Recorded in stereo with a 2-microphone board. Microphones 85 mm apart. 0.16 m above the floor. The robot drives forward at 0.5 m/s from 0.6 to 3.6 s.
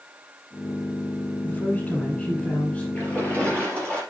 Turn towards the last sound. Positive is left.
turn(degrees=15)  # may be behind; listen again after turning